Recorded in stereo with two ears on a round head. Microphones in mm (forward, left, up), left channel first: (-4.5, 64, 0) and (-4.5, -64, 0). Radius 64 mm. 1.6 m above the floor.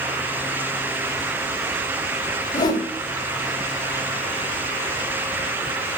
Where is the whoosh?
30° left (ahead or behind), 1.5 m.